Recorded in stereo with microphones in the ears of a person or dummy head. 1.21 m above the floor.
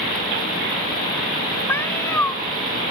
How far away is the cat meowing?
About 1.3 m.